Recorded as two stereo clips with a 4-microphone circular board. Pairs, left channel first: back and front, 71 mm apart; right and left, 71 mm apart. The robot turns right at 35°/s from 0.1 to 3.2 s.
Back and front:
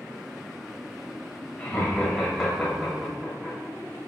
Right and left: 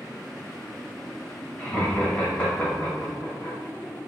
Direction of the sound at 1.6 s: 135° right.